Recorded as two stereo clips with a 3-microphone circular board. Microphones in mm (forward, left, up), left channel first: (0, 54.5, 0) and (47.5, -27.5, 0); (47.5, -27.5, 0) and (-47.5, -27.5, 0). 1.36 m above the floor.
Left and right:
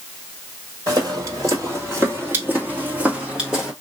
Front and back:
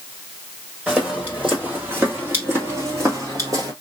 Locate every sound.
0.9 s footsteps: 100° right, 2.5 m; by 3.7 s 145° right, 2.0 m